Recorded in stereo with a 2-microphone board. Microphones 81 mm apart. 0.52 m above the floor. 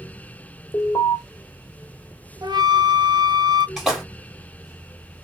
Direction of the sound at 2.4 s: 60° right (ahead or behind).